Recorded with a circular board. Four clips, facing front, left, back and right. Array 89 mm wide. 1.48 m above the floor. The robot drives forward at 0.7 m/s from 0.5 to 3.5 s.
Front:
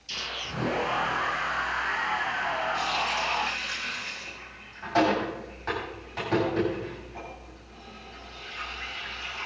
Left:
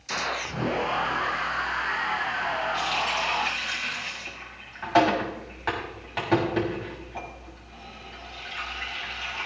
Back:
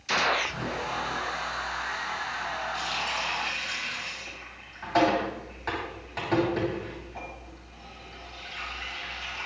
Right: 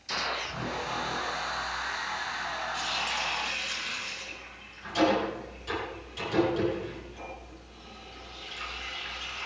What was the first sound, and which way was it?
A gunshot, 170° left.